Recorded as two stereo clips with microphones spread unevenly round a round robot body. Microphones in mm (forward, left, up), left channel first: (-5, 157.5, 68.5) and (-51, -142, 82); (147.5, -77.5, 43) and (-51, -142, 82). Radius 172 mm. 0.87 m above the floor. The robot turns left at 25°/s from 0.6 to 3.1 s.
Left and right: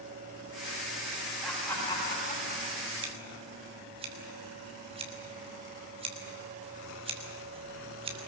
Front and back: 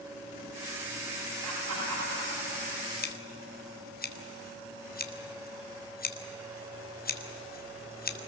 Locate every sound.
1.4 s laughter: 170° left, 8 m; by 2.9 s 135° left, 8 m
3.0 s scissors: 25° right, 3 m